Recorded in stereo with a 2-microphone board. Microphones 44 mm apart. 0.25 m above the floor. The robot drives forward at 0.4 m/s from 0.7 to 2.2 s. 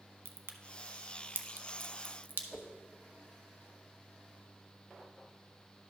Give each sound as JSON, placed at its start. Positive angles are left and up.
{"t": 0.2, "sound": "a crack", "side_deg": -65, "distance_m": 0.7}
{"t": 2.5, "sound": "a whoosh", "side_deg": 5, "distance_m": 0.7}